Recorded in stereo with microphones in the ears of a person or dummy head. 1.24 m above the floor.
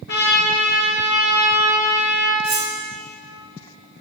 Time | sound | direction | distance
0.1 | a trumpet | 55° left (ahead or behind) | 1.4 m
2.4 | cutlery clinking | centre (ahead or behind) | 2 m